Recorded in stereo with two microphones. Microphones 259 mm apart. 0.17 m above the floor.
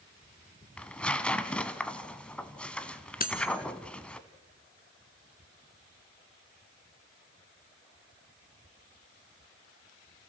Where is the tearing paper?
5° left (ahead or behind), 1.0 m.